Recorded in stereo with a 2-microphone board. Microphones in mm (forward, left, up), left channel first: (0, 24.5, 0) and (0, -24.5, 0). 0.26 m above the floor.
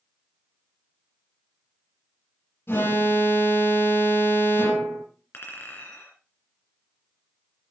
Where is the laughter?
No laughter in this recording.